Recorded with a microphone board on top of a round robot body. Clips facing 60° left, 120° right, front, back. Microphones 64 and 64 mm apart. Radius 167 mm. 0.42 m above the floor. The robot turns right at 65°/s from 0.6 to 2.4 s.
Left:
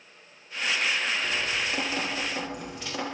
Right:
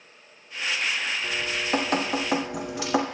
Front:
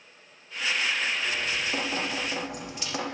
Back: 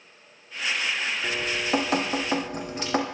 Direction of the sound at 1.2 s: 160° left.